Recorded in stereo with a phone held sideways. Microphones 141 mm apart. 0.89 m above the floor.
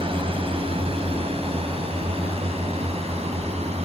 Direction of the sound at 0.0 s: 40° right (ahead or behind).